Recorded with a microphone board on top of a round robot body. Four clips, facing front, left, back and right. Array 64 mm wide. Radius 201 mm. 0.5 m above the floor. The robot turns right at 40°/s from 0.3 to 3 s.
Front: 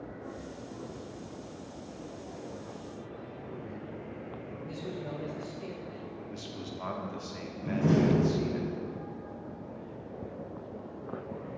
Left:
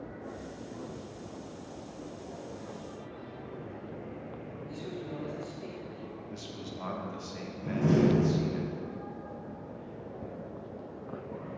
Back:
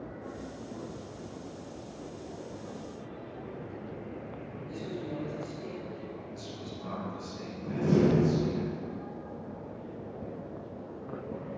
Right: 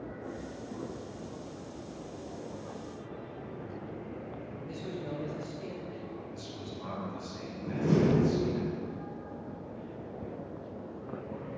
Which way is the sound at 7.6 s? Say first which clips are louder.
Left 1 dB, even; 50° left.